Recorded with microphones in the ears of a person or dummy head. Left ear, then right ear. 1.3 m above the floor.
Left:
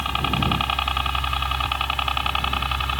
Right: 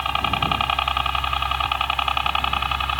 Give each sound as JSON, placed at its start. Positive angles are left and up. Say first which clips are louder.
{"t": 0.0, "sound": "a helicopter", "louder": "right 2 dB", "side_deg": -25}